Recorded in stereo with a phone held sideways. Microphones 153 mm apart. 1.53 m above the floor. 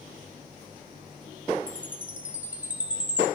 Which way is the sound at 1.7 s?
10° right (ahead or behind).